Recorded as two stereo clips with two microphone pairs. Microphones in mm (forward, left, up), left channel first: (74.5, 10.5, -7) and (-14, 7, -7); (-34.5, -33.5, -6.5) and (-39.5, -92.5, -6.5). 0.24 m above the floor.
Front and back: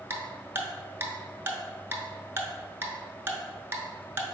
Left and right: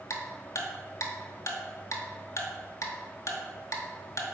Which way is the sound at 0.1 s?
115° left.